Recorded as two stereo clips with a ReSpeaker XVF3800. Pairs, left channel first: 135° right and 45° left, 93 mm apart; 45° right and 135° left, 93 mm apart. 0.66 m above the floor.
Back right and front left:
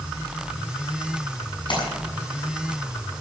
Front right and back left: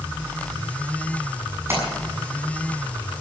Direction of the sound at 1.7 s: 165° right.